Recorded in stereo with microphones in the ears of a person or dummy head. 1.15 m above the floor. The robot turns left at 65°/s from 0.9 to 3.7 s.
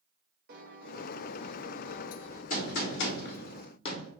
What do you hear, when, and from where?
0.5 s a piano: 105° right, 0.8 m; by 2.4 s 160° left, 0.8 m
2.5 s a gunshot: 120° left, 1.1 m; by 4.1 s 40° left, 1.1 m